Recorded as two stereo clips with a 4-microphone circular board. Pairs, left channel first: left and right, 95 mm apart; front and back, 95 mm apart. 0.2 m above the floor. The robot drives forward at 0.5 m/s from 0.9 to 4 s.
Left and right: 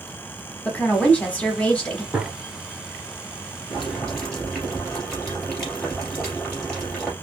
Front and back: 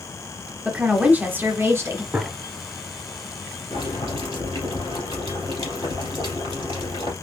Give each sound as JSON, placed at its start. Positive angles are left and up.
{"t": 0.7, "sound": "a woman speaking", "azimuth_deg": 130, "distance_m": 1.4}
{"t": 2.1, "sound": "a gunshot", "azimuth_deg": -155, "distance_m": 0.9}
{"t": 3.7, "sound": "boiling", "azimuth_deg": 175, "distance_m": 2.5}